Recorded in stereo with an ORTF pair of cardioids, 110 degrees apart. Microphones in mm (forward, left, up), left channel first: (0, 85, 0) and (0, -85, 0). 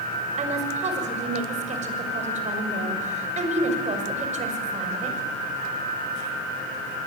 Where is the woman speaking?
45° right, 6.5 m.